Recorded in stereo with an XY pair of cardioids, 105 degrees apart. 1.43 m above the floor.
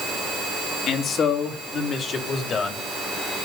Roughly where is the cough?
I don't hear a cough.